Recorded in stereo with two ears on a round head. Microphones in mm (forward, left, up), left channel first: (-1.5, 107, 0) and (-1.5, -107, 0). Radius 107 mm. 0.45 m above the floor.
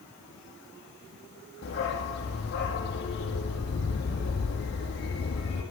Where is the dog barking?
50° left (ahead or behind), 6 m.